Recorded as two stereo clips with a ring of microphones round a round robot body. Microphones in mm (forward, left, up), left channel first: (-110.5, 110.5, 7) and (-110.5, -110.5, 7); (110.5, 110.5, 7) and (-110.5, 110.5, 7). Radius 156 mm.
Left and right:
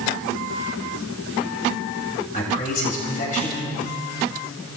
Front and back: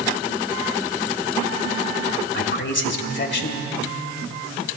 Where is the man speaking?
25° left, 1.9 m.